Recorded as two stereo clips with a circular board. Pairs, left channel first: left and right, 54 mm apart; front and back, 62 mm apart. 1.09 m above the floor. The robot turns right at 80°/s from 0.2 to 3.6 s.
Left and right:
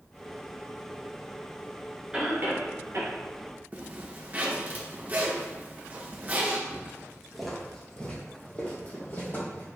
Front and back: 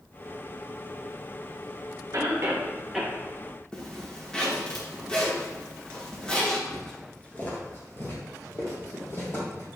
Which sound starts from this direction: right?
Footsteps, at 6.7 s.